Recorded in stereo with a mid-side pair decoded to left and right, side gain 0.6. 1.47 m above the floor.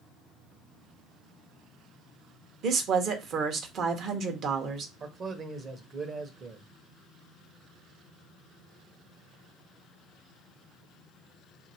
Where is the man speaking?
40° right, 1.1 m.